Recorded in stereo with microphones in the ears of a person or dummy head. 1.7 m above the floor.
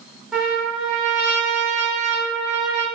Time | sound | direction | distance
0.3 | a trumpet | centre (ahead or behind) | 0.6 m